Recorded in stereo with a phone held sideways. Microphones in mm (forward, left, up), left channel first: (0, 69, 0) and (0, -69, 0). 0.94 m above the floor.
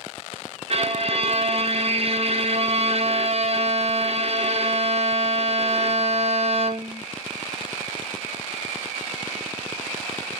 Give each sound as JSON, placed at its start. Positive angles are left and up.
{"t": 0.7, "sound": "a violin", "side_deg": -45, "distance_m": 0.9}